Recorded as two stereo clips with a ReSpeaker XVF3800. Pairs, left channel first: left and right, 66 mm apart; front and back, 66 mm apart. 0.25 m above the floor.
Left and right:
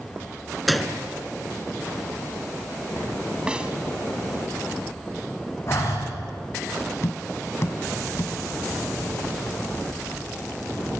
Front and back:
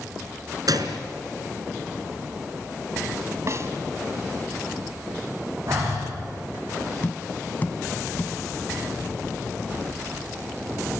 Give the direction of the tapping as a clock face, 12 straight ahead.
10 o'clock.